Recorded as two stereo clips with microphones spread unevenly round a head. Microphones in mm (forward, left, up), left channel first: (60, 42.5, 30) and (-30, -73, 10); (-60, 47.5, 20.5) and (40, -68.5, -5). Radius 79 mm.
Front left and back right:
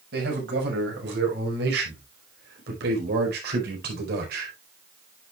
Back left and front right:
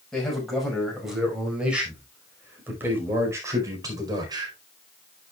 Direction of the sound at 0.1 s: 140° right.